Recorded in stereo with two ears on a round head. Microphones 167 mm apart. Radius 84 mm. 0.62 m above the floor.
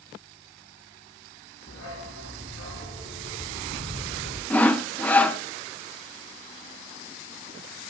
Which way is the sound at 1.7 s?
85° left.